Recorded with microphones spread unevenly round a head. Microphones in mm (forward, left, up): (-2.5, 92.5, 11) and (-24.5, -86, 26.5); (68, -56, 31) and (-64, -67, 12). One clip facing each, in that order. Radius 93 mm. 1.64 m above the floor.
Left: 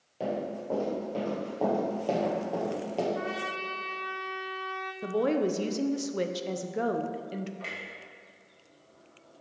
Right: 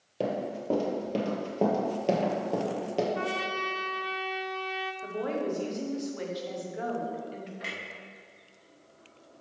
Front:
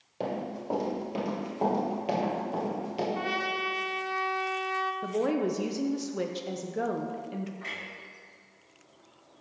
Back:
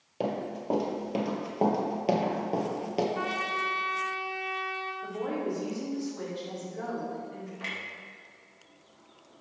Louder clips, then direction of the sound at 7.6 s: Right 1 dB, back 1 dB; 175° right.